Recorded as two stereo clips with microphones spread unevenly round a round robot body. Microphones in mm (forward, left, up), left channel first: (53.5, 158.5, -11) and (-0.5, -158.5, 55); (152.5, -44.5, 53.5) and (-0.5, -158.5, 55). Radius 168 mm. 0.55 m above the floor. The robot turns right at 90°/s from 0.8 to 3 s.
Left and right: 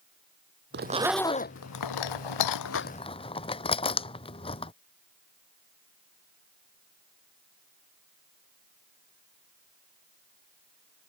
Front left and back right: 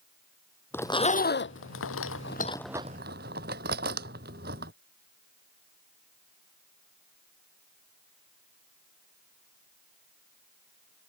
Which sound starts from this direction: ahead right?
A zipper, at 0.7 s.